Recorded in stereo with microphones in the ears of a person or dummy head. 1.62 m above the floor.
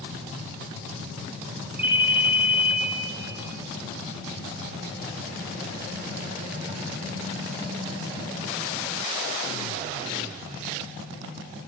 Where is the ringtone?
10° right (ahead or behind), 2.5 m.